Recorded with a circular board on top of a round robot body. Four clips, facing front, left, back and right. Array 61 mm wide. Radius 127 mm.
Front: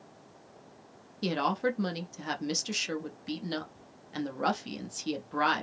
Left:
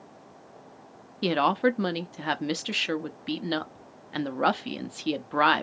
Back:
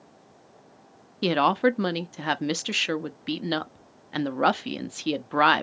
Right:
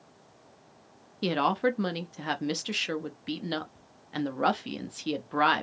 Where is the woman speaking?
165° left, 0.8 m.